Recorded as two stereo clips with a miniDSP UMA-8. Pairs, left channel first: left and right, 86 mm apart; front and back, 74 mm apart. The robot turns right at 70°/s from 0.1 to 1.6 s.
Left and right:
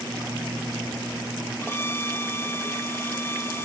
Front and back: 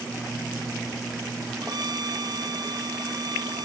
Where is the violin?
155° left.